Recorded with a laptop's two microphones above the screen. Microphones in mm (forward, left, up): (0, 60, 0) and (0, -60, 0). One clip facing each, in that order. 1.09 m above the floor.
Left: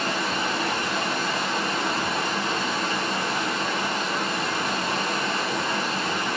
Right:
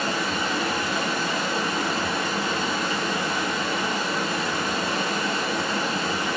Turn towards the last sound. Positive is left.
turn(degrees=-30)  # may be behind; listen again after turning